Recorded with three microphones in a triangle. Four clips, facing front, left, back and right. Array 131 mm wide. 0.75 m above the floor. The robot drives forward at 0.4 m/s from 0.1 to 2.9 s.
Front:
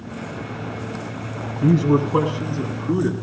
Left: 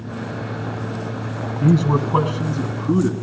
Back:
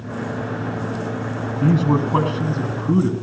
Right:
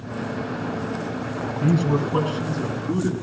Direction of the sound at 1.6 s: 140° left.